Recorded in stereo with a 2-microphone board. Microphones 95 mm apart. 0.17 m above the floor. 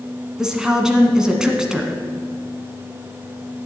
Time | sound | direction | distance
0.4 | a woman speaking | 5° right (ahead or behind) | 1.3 m